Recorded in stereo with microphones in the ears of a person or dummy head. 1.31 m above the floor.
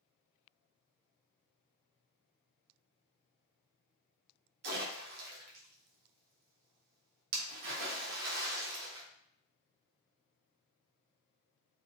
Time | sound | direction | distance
4.6 | a splash | 55° right (ahead or behind) | 0.6 m